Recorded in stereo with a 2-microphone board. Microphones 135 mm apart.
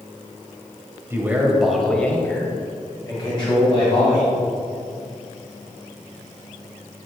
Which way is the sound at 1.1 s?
20° right (ahead or behind).